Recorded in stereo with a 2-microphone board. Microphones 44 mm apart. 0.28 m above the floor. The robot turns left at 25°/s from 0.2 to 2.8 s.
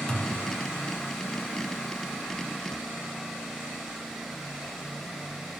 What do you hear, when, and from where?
0.1 s a thud: 20° left (ahead or behind), 0.7 m; by 0.4 s 25° left (ahead or behind), 0.7 m